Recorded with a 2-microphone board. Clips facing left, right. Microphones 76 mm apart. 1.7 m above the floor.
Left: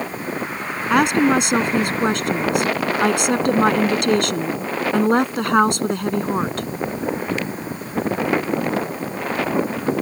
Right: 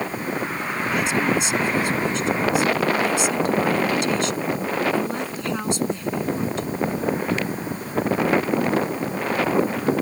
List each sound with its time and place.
0.9 s a woman speaking: 60° left (ahead or behind)